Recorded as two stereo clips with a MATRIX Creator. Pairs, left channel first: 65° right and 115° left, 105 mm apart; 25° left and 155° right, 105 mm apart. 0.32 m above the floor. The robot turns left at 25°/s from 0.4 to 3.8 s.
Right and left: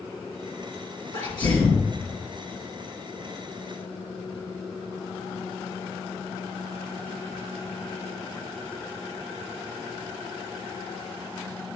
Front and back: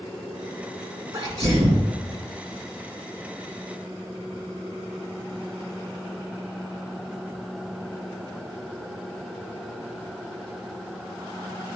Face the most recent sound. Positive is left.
turn(degrees=-170)